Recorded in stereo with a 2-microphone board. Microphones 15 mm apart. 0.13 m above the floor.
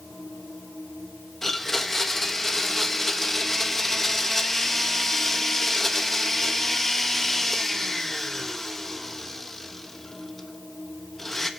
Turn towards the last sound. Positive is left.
turn(degrees=25)  # may be behind; listen again after turning